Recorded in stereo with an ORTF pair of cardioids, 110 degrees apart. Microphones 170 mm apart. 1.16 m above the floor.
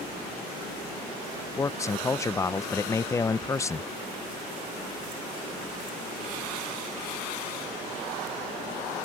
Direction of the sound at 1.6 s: 20° left.